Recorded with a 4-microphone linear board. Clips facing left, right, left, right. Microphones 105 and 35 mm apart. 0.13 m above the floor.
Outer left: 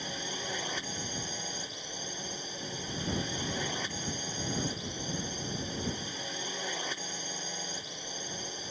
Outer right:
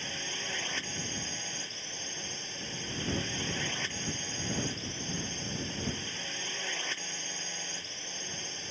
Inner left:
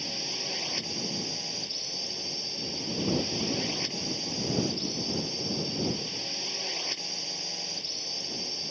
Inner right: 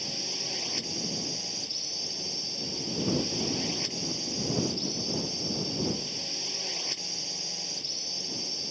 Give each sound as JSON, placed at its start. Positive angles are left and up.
{"t": 0.0, "sound": "a drone", "side_deg": 15}